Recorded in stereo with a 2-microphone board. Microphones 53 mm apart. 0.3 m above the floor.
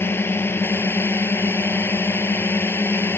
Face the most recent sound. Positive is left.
turn(degrees=45)  # may be behind; listen again after turning